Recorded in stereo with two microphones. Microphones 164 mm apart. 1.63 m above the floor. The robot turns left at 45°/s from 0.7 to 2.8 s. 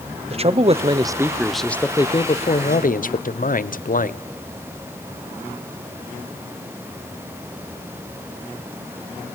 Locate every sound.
0.3 s a man speaking: 140° right, 0.8 m; by 4.2 s 125° left, 0.8 m